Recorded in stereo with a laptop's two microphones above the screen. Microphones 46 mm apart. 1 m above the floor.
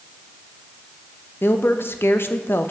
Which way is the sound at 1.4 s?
55° left (ahead or behind).